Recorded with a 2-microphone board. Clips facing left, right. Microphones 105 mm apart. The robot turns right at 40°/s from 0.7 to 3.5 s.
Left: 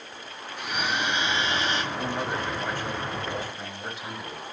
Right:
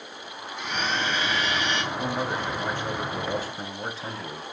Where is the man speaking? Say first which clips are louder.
Right 1 dB; 175° left, 1.5 m; by 4.4 s 120° right, 1.5 m.